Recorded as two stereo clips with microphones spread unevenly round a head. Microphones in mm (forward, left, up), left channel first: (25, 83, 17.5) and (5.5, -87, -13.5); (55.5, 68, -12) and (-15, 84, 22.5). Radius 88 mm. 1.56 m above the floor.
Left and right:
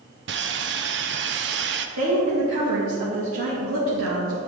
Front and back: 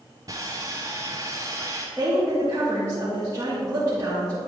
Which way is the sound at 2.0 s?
115° right.